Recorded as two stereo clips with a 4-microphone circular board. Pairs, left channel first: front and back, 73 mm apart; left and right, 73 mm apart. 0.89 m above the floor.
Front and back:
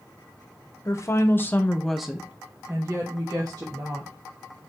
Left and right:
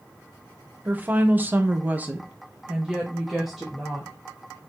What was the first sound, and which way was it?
A woman speaking, 30° right.